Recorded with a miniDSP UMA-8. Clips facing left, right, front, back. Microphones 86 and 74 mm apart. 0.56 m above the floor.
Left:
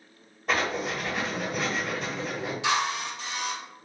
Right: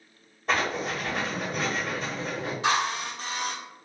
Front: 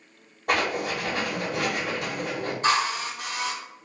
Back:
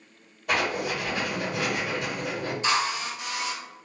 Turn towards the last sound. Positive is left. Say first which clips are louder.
# right 1 dB, front 3 dB
turn(degrees=-45)